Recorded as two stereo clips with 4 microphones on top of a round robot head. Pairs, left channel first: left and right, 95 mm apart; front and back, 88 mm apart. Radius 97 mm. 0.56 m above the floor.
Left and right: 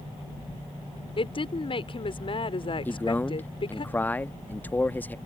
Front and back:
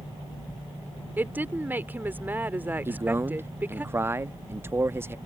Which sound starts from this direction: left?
A woman speaking, at 1.2 s.